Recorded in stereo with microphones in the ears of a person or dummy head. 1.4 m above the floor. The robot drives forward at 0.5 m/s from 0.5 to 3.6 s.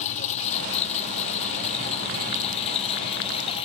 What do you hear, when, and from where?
0.0 s a lawn mower: 40° left (ahead or behind); by 3.6 s 30° left (ahead or behind)